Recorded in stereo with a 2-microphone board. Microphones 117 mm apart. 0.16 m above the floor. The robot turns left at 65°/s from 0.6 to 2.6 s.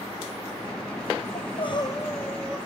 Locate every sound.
1.4 s crying: 70° left, 0.9 m; by 2.6 s 10° right, 0.9 m